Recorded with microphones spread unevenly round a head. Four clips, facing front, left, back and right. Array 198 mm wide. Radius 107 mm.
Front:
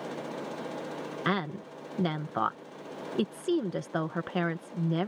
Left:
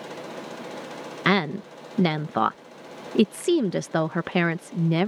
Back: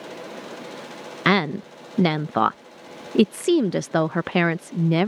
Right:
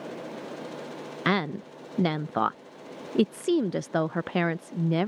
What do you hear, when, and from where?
1.2 s a woman speaking: 140° left